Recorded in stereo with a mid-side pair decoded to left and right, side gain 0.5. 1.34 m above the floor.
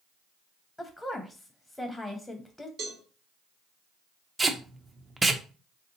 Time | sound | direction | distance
0.8 | a woman speaking | 10° left | 0.7 m
2.8 | a cowbell | 65° right | 1.3 m
4.4 | tape being pulled | 20° right | 0.5 m